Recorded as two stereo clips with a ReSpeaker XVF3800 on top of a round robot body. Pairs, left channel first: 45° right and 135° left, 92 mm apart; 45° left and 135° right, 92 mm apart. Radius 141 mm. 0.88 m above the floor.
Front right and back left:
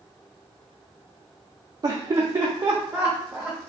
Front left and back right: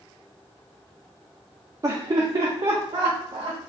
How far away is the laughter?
About 0.6 m.